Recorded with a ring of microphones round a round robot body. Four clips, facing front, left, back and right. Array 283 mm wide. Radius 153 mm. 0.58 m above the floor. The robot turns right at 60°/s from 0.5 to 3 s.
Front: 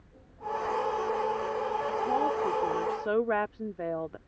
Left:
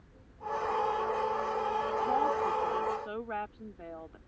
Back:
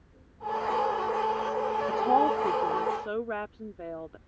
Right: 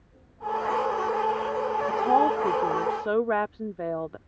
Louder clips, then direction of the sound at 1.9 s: Right 9 dB, back 6 dB; 135° right.